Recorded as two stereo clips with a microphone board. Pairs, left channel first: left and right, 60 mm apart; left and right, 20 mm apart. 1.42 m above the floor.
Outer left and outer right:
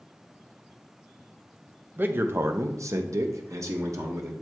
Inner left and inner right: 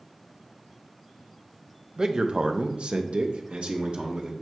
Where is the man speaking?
35° right (ahead or behind), 0.8 m; by 4.3 s 55° right (ahead or behind), 1.4 m.